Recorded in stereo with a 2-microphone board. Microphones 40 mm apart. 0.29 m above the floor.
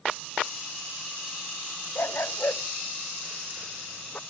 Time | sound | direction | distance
1.9 | a dog barking | 70° left (ahead or behind) | ?